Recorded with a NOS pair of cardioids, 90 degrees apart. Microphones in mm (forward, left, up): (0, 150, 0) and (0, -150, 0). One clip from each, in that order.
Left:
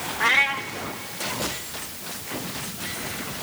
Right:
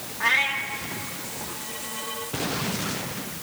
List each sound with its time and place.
0.2 s a cat meowing: 35° left, 1.2 m